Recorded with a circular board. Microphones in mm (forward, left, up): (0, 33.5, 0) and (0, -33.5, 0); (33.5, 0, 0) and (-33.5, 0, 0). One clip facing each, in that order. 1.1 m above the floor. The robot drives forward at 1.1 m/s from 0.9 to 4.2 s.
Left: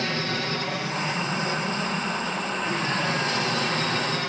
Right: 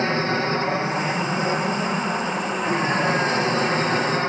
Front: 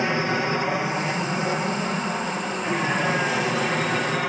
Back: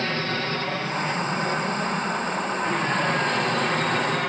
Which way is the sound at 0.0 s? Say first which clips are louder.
Right 6 dB, front 4 dB; 60° right.